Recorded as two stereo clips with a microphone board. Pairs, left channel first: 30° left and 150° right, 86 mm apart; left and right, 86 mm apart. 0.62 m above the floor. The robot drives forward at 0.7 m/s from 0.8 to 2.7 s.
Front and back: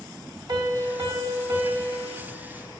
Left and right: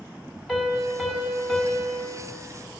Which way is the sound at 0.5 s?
Straight behind.